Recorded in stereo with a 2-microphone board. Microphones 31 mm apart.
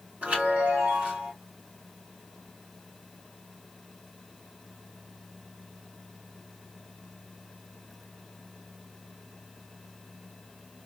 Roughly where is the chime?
Right.